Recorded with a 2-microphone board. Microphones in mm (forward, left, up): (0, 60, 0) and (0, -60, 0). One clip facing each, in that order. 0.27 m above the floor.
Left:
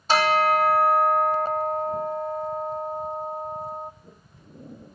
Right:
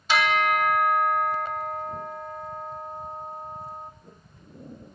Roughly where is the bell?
Left.